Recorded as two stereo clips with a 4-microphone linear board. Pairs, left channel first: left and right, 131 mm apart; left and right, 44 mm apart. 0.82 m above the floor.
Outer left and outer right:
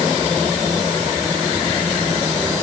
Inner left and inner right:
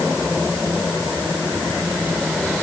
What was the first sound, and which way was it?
Only background noise.